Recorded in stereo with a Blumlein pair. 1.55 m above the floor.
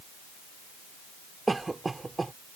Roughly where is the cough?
Ahead.